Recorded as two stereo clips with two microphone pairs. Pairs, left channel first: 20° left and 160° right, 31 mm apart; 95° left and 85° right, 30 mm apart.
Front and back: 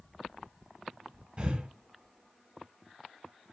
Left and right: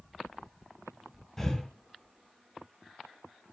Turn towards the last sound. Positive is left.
turn(degrees=165)